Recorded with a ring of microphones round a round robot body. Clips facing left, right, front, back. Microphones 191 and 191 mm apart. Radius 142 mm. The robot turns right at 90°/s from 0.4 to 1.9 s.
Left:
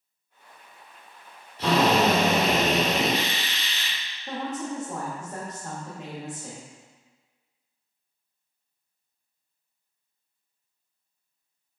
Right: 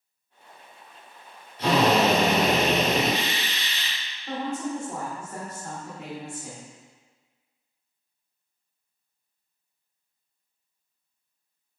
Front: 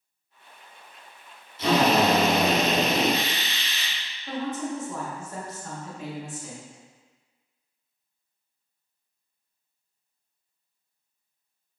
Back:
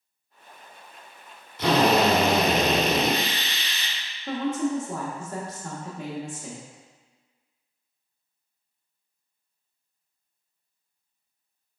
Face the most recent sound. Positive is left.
turn(degrees=160)